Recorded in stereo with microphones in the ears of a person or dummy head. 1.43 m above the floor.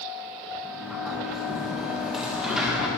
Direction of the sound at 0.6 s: Centre (ahead or behind).